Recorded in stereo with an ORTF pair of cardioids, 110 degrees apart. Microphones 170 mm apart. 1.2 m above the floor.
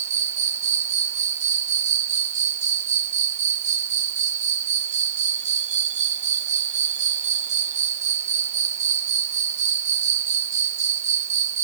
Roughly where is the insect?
Ahead right.